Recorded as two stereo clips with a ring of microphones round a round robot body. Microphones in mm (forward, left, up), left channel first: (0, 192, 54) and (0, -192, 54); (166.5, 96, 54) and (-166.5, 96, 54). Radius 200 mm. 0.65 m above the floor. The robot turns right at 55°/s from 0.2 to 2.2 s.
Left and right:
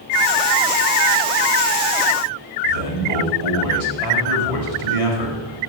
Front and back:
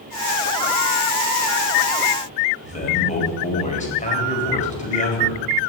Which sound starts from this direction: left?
A man speaking, at 2.6 s.